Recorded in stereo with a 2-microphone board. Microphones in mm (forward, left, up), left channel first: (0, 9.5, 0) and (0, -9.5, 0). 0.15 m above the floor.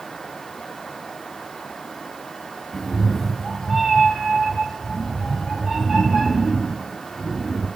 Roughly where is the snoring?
I don't hear snoring.